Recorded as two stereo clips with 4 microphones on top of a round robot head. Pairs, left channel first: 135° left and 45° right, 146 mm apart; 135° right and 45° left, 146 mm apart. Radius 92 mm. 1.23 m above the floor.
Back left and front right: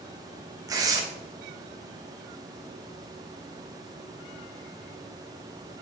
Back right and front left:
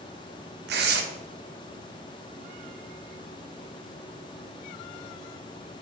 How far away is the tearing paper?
About 0.8 m.